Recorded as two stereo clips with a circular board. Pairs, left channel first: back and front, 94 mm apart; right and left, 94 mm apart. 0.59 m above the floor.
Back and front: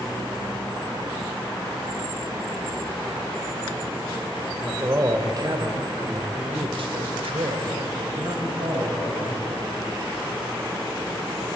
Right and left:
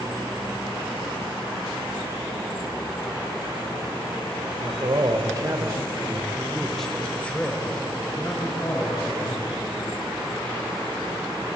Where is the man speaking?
60° left, 2 m; by 9.4 s 35° right, 4 m.